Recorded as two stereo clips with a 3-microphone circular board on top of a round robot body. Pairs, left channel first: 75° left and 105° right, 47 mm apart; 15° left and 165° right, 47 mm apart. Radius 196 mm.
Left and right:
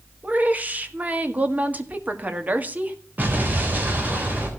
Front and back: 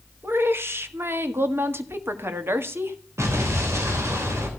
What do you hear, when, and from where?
0.2 s a woman speaking: 155° right, 1.9 m
3.2 s an explosion: 155° right, 3.5 m